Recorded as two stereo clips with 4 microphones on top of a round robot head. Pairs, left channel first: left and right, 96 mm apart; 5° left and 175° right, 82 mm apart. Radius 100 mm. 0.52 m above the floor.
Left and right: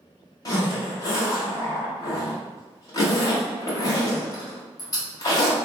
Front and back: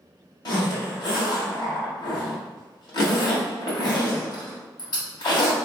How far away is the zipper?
About 1.5 m.